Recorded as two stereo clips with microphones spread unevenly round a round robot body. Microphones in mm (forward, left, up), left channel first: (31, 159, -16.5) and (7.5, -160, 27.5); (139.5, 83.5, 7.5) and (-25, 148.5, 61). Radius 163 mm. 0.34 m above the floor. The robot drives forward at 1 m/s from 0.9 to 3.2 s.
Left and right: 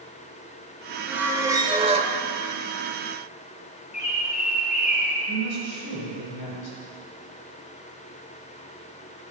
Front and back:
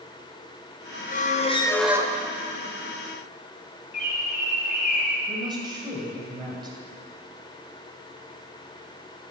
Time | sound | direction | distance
1.1 | a squeak | 5° right | 1.0 m
3.9 | a bird | 20° left | 2.5 m
5.3 | a woman speaking | 85° left | 2.5 m